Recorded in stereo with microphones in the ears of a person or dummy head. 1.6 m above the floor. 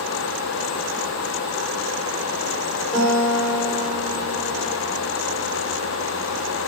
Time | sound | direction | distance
2.9 | a guitar | 5° left (ahead or behind) | 4.5 m